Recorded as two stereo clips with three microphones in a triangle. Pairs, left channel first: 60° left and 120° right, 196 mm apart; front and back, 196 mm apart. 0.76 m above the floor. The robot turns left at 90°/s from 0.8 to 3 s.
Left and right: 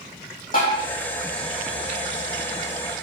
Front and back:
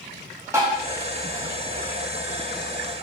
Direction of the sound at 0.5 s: 105° left.